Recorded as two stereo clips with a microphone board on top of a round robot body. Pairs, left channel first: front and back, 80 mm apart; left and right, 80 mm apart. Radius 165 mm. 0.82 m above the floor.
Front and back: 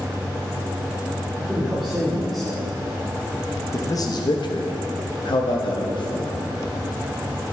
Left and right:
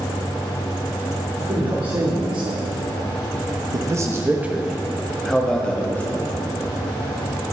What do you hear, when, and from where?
1.4 s a man speaking: 100° right, 2.5 m; by 6.5 s 25° left, 2 m